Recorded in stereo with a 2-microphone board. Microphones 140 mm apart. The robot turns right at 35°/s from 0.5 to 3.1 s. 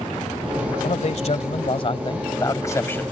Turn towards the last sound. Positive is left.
turn(degrees=165)